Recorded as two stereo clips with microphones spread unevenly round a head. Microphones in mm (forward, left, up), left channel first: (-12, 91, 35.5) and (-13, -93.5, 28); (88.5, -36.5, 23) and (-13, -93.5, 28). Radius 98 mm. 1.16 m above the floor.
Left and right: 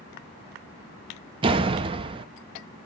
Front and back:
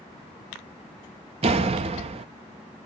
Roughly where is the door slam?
Behind right.